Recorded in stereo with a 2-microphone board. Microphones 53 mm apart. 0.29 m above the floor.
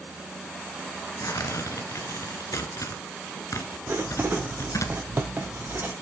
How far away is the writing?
About 1.8 m.